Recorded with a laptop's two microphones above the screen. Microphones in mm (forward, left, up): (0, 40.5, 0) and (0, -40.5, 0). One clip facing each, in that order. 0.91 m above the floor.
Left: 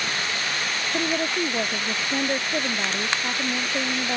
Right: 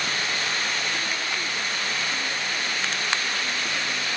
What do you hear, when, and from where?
0.9 s a woman speaking: 60° left (ahead or behind)